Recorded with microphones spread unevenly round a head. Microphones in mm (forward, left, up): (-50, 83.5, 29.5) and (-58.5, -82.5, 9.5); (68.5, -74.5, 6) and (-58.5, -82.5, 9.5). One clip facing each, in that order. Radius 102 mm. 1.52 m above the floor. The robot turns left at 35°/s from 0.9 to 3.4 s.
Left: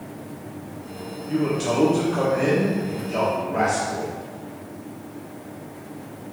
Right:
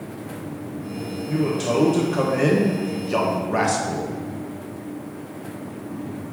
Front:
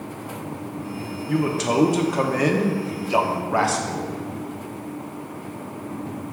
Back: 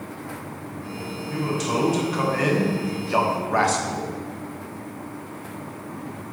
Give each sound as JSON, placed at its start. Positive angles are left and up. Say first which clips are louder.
{"t": 1.3, "sound": "a man speaking", "louder": "even, front 4 dB", "azimuth_deg": -5, "distance_m": 1.1}